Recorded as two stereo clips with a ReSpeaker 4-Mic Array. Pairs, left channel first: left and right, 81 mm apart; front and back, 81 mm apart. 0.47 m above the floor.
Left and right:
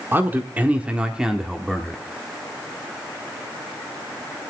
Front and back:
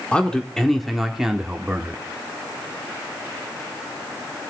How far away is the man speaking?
About 1.5 m.